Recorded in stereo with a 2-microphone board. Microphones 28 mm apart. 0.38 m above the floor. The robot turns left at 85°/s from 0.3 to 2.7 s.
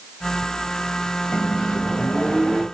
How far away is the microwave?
About 1.4 m.